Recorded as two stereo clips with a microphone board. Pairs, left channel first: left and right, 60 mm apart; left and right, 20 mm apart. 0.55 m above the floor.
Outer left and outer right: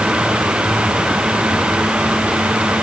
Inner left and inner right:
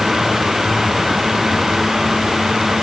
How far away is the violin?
I don't hear a violin.